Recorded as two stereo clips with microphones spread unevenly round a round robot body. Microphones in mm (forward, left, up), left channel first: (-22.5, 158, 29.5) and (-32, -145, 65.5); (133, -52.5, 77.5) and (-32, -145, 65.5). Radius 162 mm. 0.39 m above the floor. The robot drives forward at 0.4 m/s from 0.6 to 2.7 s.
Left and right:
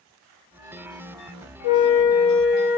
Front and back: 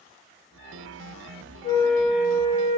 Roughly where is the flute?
Left.